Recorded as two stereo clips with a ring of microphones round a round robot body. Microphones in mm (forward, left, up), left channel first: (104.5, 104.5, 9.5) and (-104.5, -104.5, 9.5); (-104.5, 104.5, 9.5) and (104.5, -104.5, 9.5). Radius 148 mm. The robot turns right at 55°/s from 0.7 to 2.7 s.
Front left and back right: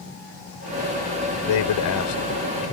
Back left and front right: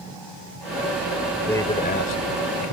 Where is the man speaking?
50° left; by 2.7 s 120° left.